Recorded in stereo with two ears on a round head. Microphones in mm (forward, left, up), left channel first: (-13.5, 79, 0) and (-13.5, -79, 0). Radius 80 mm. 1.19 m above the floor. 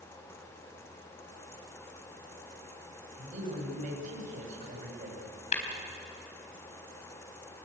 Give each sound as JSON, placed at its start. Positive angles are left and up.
{"t": 3.2, "sound": "a man speaking", "side_deg": -45, "distance_m": 7.5}
{"t": 5.5, "sound": "tapping", "side_deg": 40, "distance_m": 4.5}